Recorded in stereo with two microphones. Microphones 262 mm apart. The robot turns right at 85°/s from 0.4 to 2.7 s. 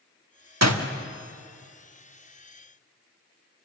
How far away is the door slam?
About 1.3 m.